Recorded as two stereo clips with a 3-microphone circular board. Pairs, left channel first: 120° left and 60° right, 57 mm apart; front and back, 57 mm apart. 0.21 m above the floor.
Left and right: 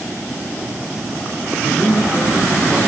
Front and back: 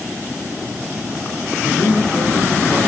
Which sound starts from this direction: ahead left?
A man speaking, at 1.6 s.